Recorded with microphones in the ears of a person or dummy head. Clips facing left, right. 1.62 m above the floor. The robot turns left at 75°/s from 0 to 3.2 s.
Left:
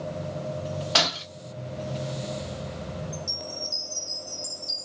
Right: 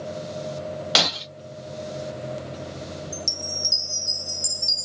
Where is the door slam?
I don't hear a door slam.